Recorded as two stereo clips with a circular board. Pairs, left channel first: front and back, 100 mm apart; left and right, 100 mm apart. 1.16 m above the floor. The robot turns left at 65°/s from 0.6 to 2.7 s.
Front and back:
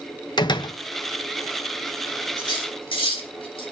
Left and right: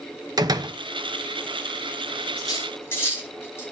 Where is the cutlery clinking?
45° left, 5.5 m; by 3.6 s 25° left, 5.5 m.